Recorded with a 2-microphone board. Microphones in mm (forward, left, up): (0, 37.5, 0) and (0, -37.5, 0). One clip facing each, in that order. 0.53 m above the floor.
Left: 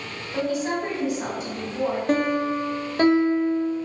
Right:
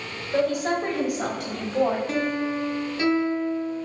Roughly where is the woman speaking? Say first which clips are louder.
Right 2 dB; right.